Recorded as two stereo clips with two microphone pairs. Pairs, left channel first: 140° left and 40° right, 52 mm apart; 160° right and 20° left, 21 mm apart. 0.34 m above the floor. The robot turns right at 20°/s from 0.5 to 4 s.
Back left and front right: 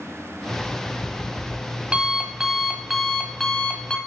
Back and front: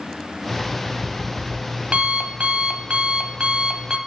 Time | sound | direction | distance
0.5 | an alarm clock | 5° right | 1.3 m